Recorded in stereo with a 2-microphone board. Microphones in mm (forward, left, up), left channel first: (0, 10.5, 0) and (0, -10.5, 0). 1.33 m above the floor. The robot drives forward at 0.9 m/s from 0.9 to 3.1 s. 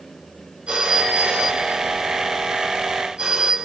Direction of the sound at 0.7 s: 65° right (ahead or behind).